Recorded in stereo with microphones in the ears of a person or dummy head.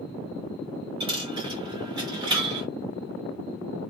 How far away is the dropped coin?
About 0.6 m.